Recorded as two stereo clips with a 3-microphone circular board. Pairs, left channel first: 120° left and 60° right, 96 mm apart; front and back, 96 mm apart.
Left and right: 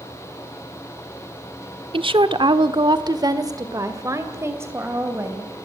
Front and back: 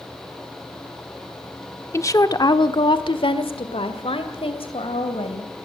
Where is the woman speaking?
60° right, 1.3 m; by 5.5 s 5° left, 3.5 m.